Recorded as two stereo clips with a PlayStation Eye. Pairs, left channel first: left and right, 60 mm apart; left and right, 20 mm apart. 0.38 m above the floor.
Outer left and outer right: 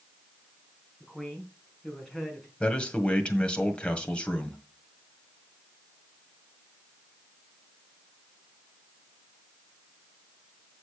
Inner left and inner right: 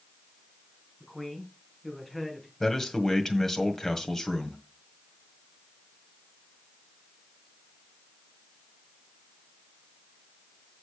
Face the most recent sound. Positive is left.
turn(degrees=20)  # may be behind; listen again after turning